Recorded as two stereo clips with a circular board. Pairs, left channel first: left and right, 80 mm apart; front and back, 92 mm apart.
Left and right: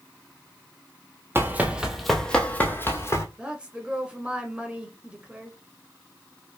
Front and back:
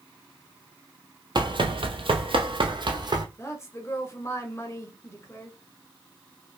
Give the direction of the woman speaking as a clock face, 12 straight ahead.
1 o'clock.